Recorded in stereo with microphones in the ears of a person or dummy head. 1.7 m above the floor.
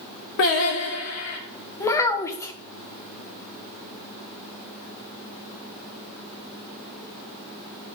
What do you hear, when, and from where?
0.4 s singing: 55° left (ahead or behind), 1.7 m
1.8 s a child speaking: 20° left (ahead or behind), 0.9 m